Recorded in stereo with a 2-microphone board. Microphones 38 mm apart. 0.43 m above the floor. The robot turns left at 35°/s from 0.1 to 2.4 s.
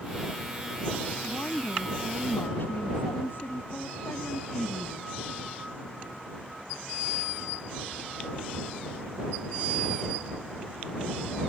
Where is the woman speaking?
135° left; by 5.1 s 95° left.